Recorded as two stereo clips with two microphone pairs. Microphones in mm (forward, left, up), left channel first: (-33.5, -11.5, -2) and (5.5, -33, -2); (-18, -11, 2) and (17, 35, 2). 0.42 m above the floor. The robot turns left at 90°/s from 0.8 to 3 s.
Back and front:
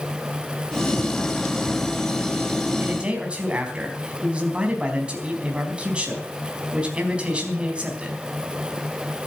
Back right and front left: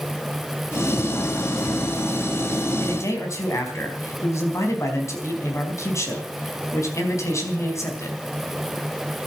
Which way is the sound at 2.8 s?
75° right.